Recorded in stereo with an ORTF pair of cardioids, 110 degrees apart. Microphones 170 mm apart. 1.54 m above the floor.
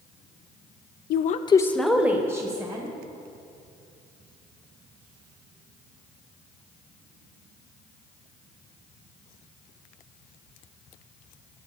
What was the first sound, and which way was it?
A woman speaking, 70° left.